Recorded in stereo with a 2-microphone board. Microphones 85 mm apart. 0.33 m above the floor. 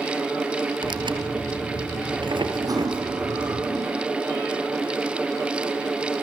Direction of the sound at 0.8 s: 70° right (ahead or behind).